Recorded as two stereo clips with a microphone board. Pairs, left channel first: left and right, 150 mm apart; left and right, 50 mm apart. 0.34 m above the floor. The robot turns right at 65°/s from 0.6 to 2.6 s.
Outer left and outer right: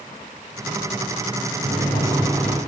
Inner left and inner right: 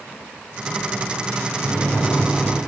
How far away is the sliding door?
About 5 m.